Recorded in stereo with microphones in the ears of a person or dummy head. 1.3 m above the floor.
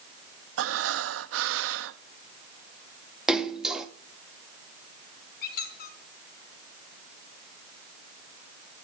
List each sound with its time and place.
0.6 s breathing: 75° right (ahead or behind), 1.2 m
3.3 s a splash: 5° right (ahead or behind), 1.9 m
5.4 s a squeak: 50° left (ahead or behind), 3 m